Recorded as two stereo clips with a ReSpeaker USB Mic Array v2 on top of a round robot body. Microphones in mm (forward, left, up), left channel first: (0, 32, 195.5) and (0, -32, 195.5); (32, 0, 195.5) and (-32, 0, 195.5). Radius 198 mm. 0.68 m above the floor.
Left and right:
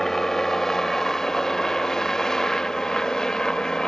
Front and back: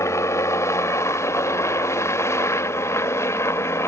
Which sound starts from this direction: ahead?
A helicopter, at 0.0 s.